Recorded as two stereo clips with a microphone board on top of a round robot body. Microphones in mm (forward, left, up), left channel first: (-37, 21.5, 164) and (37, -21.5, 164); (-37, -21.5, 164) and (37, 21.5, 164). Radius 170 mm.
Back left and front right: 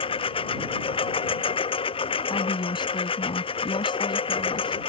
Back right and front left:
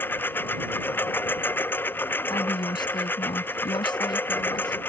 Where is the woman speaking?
Straight behind.